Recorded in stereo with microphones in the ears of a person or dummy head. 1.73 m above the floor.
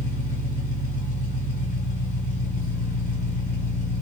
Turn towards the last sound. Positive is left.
turn(degrees=55)  # may be behind; listen again after turning